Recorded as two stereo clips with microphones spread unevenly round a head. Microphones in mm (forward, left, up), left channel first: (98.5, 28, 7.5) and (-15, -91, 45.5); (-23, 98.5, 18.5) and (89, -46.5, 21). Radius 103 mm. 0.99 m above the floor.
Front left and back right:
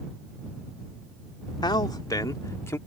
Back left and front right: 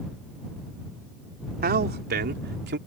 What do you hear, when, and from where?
1.6 s a man speaking: 15° right; by 2.8 s 25° right